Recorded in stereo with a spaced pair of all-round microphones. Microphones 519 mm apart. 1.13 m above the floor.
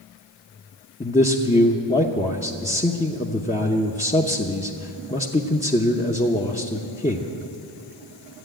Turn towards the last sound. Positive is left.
turn(degrees=15)  # may be behind; listen again after turning